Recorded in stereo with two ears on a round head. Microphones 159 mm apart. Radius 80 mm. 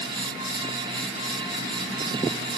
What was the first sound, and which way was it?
Only background noise.